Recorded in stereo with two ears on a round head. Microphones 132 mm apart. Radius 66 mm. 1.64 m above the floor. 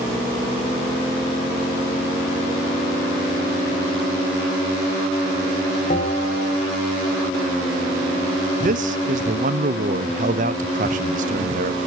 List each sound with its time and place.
5.9 s a bell: 55° left (ahead or behind), 0.9 m
8.6 s a man speaking: 55° right (ahead or behind), 0.7 m